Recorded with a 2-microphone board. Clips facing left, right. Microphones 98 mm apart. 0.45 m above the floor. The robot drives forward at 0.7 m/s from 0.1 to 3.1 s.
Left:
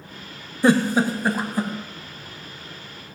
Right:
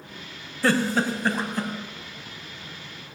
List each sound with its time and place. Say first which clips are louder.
0.6 s a giggle: left 4 dB; 20° left (ahead or behind), 0.7 m; by 1.7 s 10° left (ahead or behind), 1.4 m